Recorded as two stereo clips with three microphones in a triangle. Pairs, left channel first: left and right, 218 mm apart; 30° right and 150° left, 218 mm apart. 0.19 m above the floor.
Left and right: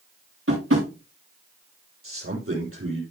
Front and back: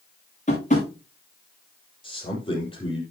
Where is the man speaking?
95° right, 6 m.